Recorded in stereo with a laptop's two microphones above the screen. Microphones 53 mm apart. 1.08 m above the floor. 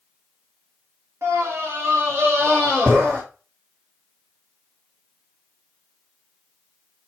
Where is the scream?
60° right (ahead or behind), 1.8 m; by 3.2 s 20° right (ahead or behind), 1.8 m.